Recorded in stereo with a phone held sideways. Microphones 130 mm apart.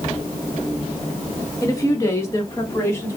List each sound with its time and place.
1.6 s a woman speaking: 25° left (ahead or behind), 1.6 m; by 3.2 s 20° left (ahead or behind), 2.5 m